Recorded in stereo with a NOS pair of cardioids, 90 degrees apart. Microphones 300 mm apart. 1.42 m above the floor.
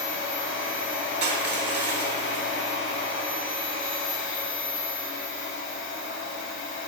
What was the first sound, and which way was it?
A machine running, 45° left.